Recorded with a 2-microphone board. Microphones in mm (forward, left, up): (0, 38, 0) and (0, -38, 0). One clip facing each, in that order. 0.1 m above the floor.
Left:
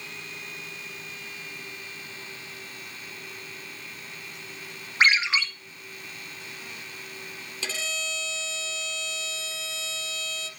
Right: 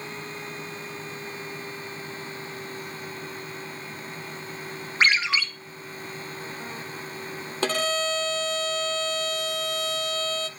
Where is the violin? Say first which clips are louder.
Right 10 dB; 55° right (ahead or behind), 0.7 m.